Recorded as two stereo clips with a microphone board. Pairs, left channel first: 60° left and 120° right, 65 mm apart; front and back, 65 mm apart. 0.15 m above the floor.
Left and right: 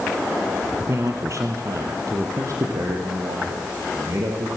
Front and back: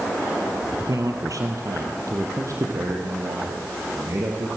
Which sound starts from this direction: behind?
A man speaking, at 0.9 s.